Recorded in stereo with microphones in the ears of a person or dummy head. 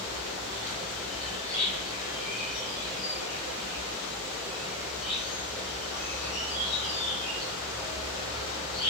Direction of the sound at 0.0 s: Centre (ahead or behind).